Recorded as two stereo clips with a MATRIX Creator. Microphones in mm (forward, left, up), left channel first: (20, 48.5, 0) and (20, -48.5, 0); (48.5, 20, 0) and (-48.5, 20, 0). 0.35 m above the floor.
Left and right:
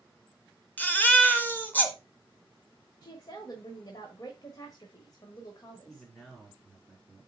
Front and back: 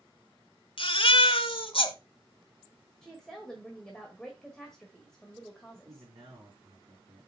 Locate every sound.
0.8 s a baby crying: 20° left, 1.2 m
3.0 s a woman speaking: 80° left, 1.4 m
5.8 s a man speaking: 175° left, 4.5 m